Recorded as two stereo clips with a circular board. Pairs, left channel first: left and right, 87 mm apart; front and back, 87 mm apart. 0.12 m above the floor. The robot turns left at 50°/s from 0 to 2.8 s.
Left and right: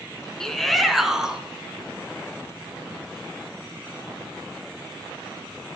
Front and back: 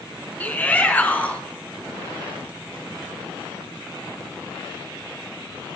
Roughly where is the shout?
Ahead.